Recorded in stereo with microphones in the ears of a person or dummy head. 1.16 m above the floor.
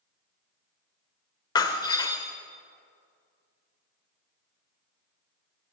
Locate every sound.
1.6 s breaking glass: 25° left (ahead or behind), 1.7 m